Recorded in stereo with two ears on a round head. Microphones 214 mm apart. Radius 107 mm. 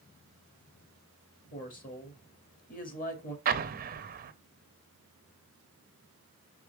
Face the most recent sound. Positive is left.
turn(degrees=-35)  # may be behind; listen again after turning